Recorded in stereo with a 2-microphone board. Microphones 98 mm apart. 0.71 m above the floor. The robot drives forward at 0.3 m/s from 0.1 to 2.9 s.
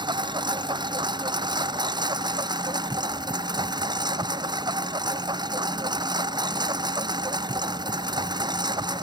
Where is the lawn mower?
50° right (ahead or behind); by 9.0 s 45° right (ahead or behind).